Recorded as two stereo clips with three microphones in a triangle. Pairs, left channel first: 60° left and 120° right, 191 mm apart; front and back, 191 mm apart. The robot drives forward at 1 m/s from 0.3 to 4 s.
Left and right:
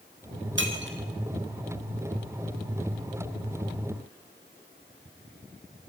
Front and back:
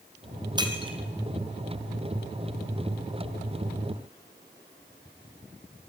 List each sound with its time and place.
0.6 s breaking glass: 110° right, 3 m; by 1.0 s 120° right, 3.5 m